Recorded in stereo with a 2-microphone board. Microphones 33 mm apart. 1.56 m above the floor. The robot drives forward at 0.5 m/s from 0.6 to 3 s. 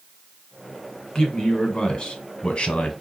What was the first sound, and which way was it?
A man speaking, 25° left (ahead or behind).